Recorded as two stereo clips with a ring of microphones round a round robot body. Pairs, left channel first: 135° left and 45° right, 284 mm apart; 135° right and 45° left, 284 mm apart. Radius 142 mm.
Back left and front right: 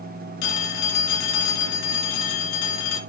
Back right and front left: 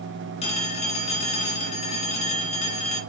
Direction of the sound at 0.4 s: 155° left.